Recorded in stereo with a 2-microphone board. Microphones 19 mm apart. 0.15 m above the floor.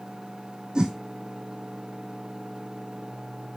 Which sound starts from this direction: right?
A whoosh, at 0.8 s.